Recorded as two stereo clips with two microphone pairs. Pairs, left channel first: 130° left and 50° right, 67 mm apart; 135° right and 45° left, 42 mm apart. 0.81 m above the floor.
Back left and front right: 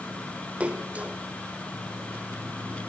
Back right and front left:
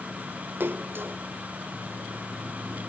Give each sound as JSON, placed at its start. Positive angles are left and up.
{"t": 0.6, "sound": "a splash", "azimuth_deg": 20, "distance_m": 1.0}